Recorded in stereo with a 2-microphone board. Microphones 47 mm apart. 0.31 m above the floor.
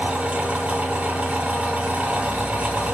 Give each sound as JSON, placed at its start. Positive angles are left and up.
{"t": 0.0, "sound": "an engine running", "side_deg": -35, "distance_m": 1.3}